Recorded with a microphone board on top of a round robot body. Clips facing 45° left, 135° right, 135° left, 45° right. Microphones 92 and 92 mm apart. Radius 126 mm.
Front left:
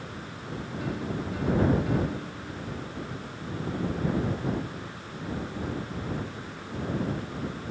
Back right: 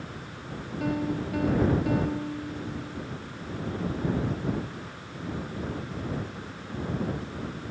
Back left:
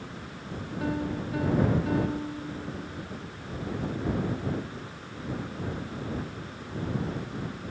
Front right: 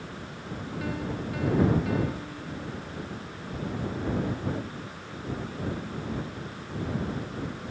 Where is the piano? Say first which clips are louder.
Back right 5 dB, back left 3 dB; 165° right.